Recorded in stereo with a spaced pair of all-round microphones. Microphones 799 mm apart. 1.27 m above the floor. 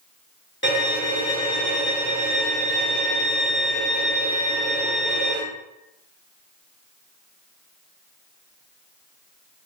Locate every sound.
0.6 s a violin: 15° left (ahead or behind), 1.4 m